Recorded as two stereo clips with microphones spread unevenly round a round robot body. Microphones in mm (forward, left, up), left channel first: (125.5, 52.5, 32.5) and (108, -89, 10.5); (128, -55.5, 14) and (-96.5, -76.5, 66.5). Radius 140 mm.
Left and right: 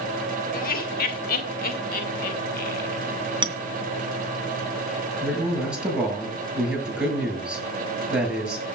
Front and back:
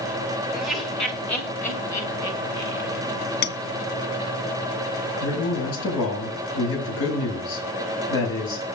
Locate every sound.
0.5 s laughter: 90° left, 2 m; by 3.0 s 75° left, 4 m
3.4 s a clink: 40° right, 2.5 m
5.2 s a man speaking: 15° right, 8 m